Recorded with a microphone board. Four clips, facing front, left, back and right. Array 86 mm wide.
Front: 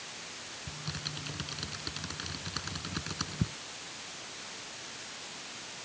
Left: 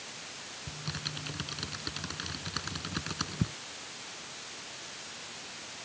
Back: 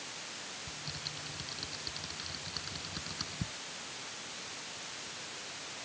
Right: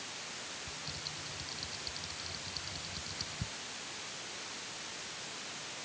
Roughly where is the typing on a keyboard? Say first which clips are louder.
Left 5 dB, front 4 dB; ahead left.